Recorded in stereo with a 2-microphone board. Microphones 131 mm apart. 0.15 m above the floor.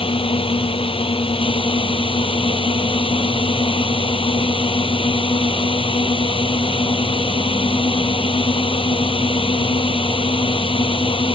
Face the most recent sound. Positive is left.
turn(degrees=45)  # may be behind; listen again after turning